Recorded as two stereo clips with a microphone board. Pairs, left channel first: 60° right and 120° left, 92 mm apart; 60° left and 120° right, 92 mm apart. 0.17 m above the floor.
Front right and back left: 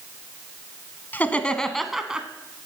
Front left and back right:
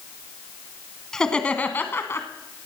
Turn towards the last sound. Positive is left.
turn(degrees=55)